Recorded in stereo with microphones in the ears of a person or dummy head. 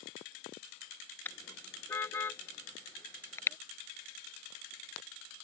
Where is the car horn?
10° left (ahead or behind); by 3.6 s 15° left (ahead or behind).